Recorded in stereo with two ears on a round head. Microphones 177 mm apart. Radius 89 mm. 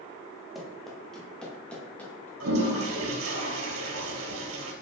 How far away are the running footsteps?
About 5 m.